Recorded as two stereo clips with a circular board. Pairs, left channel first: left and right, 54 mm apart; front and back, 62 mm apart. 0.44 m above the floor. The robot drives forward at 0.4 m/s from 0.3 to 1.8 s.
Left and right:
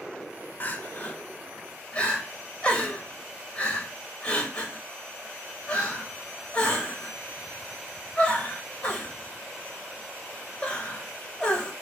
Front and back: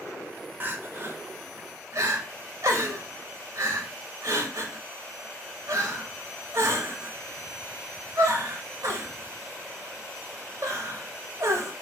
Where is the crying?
130° left, 0.6 m; by 11.7 s 155° left, 0.9 m.